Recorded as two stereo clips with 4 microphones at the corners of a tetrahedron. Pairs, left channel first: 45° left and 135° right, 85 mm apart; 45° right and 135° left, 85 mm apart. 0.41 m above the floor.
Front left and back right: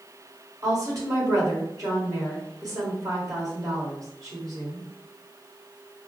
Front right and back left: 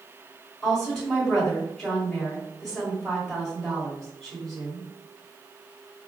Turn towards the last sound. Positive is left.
turn(degrees=-125)